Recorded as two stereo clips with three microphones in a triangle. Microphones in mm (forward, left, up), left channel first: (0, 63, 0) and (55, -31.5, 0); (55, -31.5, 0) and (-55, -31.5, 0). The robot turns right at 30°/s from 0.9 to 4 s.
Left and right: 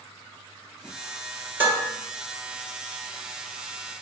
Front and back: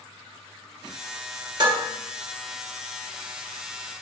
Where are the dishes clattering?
130° right, 1.6 m; by 1.9 s 125° right, 1.6 m.